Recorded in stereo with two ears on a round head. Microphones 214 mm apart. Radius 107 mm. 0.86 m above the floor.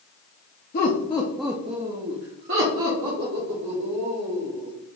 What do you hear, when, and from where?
0.7 s laughter: 40° left (ahead or behind), 0.9 m; by 4.7 s 80° right, 3 m